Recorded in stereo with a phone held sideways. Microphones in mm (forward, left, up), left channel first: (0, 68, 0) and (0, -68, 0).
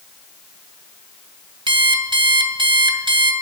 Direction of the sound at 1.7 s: 40° right (ahead or behind).